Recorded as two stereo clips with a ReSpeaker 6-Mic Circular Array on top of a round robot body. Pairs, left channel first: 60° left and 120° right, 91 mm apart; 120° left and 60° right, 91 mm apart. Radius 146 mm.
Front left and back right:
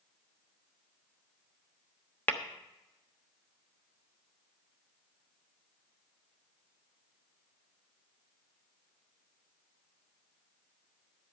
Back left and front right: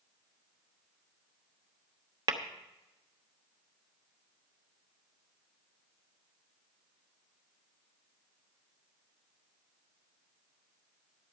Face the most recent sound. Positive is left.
turn(degrees=-15)